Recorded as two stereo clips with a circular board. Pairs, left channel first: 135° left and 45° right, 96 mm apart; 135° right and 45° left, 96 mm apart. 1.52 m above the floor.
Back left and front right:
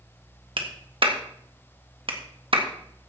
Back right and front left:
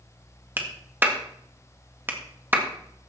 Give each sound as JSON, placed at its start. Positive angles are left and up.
{"t": 0.6, "sound": "a clap", "azimuth_deg": -25, "distance_m": 1.7}